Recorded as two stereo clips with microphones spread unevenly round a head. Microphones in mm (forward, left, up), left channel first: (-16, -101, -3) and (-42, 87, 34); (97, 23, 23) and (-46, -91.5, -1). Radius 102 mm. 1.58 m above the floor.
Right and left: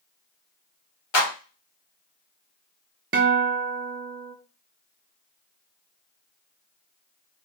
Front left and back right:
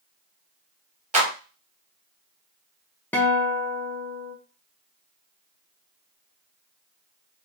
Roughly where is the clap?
Right.